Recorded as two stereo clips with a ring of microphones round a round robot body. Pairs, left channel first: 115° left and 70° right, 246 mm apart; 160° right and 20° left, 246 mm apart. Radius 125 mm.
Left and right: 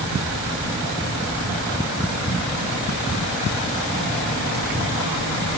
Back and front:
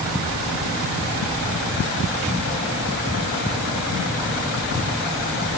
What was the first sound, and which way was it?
Only background noise.